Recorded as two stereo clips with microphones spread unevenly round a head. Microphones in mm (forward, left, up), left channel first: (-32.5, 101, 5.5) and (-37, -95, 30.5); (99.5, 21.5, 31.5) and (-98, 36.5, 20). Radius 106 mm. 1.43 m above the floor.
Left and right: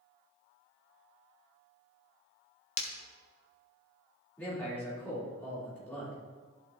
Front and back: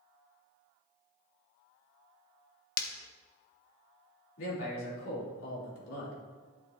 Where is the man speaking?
5° left, 4 m.